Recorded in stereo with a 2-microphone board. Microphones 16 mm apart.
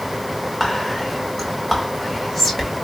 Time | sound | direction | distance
0.6 | whispering | 20° left (ahead or behind) | 1.6 m